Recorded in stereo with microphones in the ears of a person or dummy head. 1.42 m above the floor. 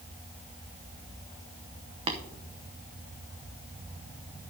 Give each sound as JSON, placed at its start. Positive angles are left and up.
{"t": 2.1, "sound": "tapping", "side_deg": -30, "distance_m": 0.8}